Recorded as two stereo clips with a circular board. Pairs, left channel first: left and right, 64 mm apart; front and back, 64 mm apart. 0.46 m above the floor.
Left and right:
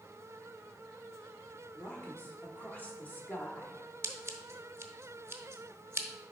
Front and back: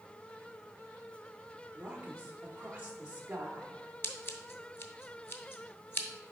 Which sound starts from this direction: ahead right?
Scissors, at 4.0 s.